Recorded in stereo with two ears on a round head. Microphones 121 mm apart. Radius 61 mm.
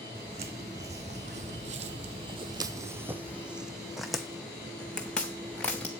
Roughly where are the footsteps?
Right.